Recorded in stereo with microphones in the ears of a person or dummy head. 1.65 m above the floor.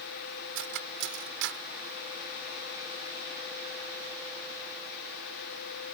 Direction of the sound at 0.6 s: 70° right (ahead or behind).